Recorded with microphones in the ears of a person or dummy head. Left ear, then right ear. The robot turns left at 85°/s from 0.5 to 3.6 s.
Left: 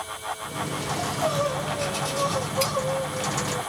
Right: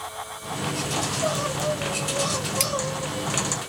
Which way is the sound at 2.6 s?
45° right (ahead or behind).